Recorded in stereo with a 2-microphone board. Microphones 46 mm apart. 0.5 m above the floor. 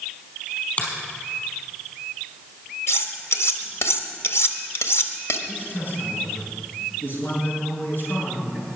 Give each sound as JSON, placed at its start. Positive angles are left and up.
{"t": 0.8, "sound": "a finger snap", "side_deg": 35, "distance_m": 4.0}
{"t": 2.9, "sound": "cutlery clinking", "side_deg": 75, "distance_m": 1.2}
{"t": 5.5, "sound": "a man speaking", "side_deg": 50, "distance_m": 5.5}